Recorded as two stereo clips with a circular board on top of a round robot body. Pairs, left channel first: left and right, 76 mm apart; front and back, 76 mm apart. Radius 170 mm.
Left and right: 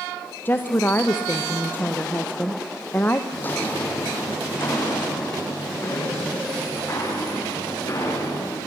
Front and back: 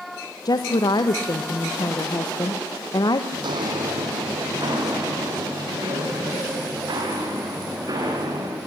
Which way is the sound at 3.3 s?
155° left.